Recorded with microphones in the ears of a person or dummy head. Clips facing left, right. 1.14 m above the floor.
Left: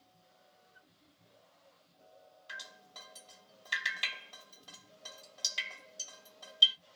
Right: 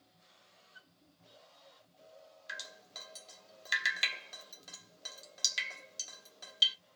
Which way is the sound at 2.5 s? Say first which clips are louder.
Right 1 dB; 30° right (ahead or behind).